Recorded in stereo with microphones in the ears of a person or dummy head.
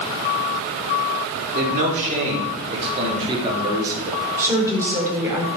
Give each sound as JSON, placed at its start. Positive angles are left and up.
{"t": 1.6, "sound": "a man speaking", "side_deg": -45, "distance_m": 3.5}
{"t": 4.4, "sound": "a woman speaking", "side_deg": -15, "distance_m": 4.0}